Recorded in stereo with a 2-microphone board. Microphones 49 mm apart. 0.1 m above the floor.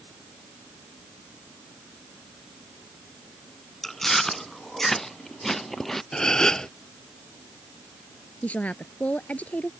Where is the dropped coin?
No dropped coin in this recording.